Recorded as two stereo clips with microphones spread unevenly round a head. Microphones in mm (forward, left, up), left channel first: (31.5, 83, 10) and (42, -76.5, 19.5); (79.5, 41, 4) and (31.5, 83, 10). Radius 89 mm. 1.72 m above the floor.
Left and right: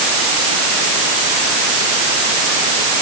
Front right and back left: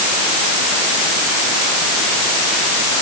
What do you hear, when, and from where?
Only background noise.